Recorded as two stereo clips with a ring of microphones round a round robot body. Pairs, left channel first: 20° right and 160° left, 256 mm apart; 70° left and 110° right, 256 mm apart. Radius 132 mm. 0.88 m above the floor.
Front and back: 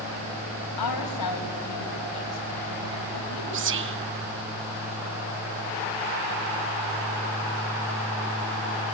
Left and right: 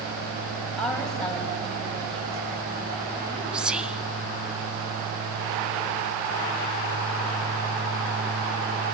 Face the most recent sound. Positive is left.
turn(degrees=160)